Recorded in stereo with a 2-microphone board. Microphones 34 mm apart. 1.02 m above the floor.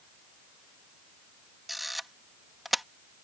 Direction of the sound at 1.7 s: 5° right (ahead or behind).